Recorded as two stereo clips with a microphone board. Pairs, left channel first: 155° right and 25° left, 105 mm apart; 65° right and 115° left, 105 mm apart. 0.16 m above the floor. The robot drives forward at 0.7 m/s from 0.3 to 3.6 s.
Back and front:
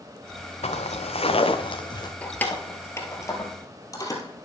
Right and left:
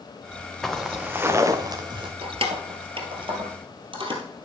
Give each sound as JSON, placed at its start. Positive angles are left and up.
{"t": 0.6, "sound": "footsteps", "azimuth_deg": -155, "distance_m": 1.4}
{"t": 2.2, "sound": "keys jangling", "azimuth_deg": 125, "distance_m": 1.7}